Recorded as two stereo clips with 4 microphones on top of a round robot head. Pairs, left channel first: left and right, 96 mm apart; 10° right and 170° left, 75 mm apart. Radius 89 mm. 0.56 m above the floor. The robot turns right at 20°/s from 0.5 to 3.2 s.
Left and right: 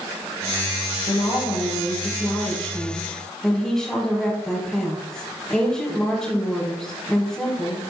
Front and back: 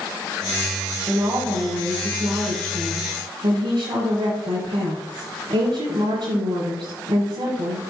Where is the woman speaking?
130° left, 4.5 m; by 7.8 s 175° left, 4.5 m.